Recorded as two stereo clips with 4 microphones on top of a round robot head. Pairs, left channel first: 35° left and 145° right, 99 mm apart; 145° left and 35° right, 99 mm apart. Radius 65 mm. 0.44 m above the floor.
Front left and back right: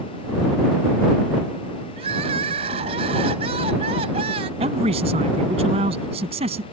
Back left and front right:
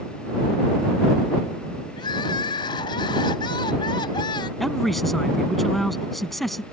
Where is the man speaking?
125° right.